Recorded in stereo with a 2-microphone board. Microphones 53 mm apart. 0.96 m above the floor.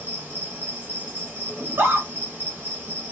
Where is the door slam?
I don't hear a door slam.